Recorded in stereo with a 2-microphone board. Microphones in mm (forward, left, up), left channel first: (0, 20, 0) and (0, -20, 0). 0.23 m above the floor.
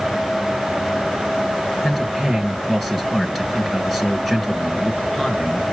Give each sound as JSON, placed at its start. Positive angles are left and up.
{"t": 1.8, "sound": "a man speaking", "side_deg": 10, "distance_m": 4.0}